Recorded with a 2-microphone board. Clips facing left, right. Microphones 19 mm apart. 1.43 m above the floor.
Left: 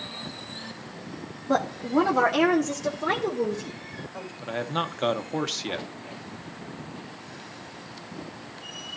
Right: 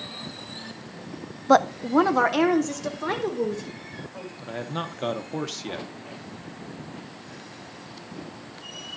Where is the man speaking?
20° left (ahead or behind), 0.8 m.